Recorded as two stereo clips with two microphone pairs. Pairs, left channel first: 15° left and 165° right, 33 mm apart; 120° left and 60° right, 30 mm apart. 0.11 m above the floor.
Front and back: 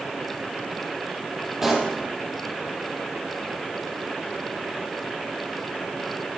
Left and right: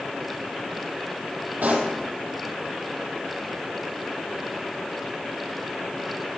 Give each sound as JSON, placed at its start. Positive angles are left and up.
{"t": 1.6, "sound": "a pop", "azimuth_deg": -85, "distance_m": 3.0}